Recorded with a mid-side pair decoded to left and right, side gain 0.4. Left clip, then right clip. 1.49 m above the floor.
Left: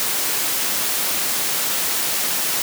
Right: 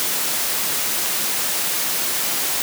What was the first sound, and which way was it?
Only background noise.